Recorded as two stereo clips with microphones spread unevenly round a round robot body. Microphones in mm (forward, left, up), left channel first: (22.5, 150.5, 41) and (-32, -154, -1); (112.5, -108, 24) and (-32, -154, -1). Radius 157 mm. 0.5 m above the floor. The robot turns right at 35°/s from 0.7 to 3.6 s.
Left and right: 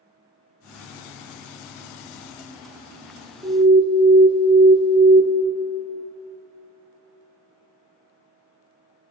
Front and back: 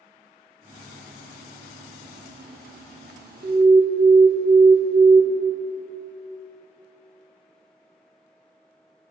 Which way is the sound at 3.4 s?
165° right.